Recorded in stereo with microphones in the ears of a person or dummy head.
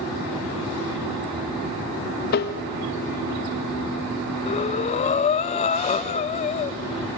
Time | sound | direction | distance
2.3 | tapping | 50° left (ahead or behind) | 1.1 m
4.5 | breathing | 35° left (ahead or behind) | 0.6 m